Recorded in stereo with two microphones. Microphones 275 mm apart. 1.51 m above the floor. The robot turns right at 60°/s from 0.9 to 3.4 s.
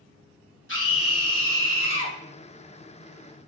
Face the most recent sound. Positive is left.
turn(degrees=-165)